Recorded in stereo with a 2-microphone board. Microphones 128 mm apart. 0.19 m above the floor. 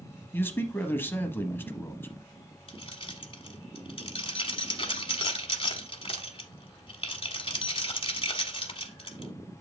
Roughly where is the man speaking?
Centre.